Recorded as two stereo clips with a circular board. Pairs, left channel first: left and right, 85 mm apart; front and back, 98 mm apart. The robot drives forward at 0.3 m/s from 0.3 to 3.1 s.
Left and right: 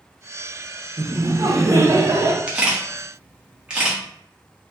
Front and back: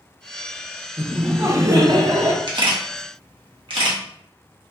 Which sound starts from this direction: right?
Laughter, at 1.0 s.